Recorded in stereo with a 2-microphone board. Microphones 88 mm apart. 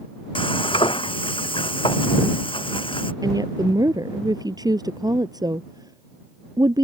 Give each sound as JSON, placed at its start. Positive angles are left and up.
{"t": 0.3, "sound": "frying", "side_deg": 80}
{"t": 3.2, "sound": "a woman speaking", "side_deg": -45}